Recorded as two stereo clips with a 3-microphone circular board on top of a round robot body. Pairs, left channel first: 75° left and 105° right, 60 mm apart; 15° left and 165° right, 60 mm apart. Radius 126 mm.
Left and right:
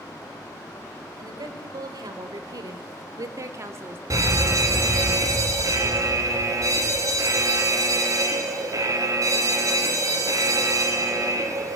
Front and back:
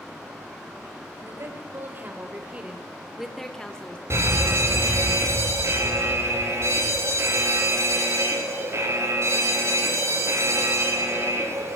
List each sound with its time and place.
1.2 s a woman speaking: 115° right, 4 m; by 4.0 s 55° right, 2.5 m
4.1 s a fire alarm: 130° right, 4.5 m